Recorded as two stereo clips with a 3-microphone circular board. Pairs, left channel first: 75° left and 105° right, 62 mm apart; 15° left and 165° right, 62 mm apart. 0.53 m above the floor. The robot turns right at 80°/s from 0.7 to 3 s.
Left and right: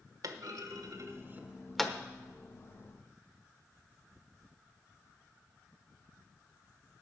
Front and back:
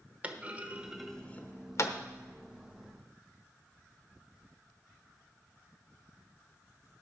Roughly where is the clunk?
Right.